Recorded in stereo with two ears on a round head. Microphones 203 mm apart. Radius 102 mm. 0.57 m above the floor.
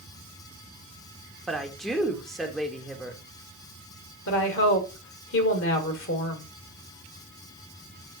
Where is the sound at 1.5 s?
Centre (ahead or behind), 1.1 m.